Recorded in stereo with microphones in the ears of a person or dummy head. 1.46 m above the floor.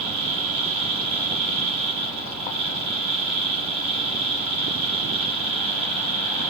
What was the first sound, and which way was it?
A fan, 25° right (ahead or behind).